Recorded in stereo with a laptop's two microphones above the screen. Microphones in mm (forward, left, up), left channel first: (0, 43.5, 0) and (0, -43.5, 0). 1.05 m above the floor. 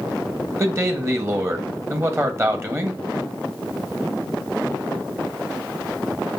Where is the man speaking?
30° right (ahead or behind), 1.2 m.